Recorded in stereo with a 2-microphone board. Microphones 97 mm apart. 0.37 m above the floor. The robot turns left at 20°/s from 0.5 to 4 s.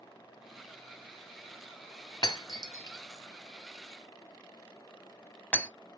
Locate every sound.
2.2 s breaking glass: 45° left (ahead or behind), 0.8 m; by 5.7 s 10° left (ahead or behind), 0.8 m